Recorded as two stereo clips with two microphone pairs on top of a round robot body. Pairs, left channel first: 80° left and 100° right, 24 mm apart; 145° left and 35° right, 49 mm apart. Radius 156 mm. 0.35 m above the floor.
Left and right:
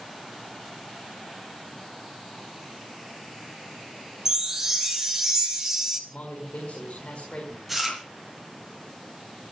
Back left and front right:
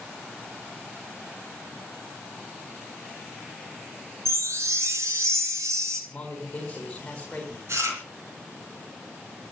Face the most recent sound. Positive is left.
turn(degrees=-10)